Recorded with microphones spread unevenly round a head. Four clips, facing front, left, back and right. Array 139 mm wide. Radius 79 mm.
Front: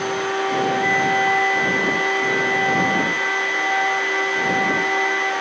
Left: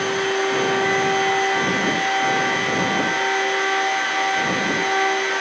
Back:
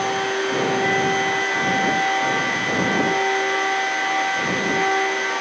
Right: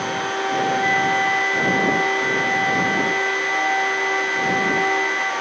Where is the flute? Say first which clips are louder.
Even, front 1 dB; 40° right.